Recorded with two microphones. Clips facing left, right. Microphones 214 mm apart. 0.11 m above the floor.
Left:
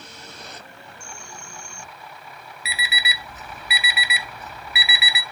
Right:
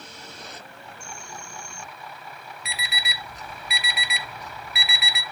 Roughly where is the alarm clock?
Centre.